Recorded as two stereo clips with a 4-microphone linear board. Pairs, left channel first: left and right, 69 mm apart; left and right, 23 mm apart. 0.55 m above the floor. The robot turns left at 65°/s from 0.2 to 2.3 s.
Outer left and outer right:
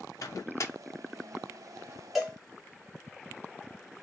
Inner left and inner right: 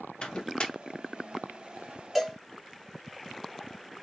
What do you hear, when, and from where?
0.2 s a microwave: 55° left (ahead or behind), 0.6 m; by 0.7 s 45° left (ahead or behind), 0.6 m
2.1 s a cowbell: 5° right (ahead or behind), 1.6 m; by 2.4 s 10° right (ahead or behind), 1.6 m